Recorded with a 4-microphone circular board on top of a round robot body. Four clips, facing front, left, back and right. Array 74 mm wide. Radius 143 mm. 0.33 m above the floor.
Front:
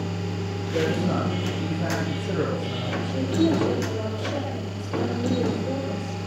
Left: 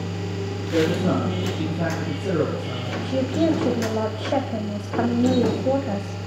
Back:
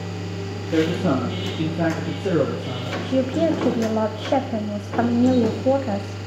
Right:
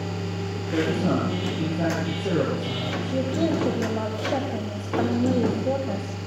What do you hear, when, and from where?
0.7 s a man speaking: straight behind, 10 m; by 2.9 s 170° right, 10 m
3.0 s a woman speaking: 170° left, 2.5 m